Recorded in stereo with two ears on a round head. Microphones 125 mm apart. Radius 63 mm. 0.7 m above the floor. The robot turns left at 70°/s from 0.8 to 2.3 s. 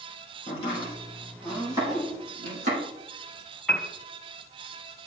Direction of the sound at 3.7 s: Centre (ahead or behind).